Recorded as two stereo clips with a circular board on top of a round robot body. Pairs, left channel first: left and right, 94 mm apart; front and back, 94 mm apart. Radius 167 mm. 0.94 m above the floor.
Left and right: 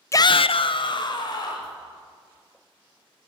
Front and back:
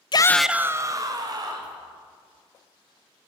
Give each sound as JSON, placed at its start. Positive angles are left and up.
{"t": 0.1, "sound": "a shout", "azimuth_deg": 30, "distance_m": 0.5}